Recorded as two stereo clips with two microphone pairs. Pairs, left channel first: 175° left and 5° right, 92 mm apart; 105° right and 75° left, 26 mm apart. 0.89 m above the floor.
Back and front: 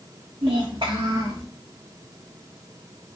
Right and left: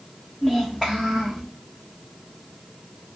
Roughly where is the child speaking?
Ahead.